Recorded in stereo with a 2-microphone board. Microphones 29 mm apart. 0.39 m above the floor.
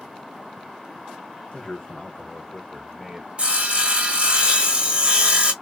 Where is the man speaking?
40° left (ahead or behind), 1.1 m; by 3.3 s 10° right (ahead or behind), 0.8 m.